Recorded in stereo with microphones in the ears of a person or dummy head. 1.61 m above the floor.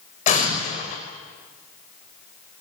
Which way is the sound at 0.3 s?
40° left (ahead or behind).